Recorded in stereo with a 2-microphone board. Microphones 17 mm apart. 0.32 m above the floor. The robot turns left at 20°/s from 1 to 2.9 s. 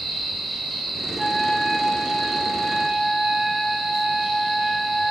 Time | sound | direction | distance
1.2 | a trumpet | 105° left | 9.5 m